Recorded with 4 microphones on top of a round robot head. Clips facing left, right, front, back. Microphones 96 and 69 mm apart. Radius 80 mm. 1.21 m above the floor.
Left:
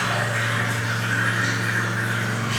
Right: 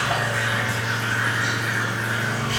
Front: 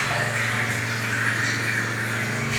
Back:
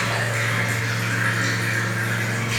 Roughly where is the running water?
Behind.